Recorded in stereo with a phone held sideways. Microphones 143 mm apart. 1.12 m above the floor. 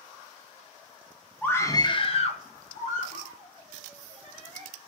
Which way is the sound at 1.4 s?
10° left (ahead or behind).